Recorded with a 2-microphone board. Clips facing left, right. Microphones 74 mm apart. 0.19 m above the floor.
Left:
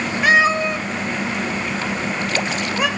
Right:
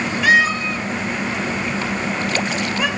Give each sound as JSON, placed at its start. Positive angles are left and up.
{"t": 0.2, "sound": "a cat meowing", "side_deg": 25, "distance_m": 1.4}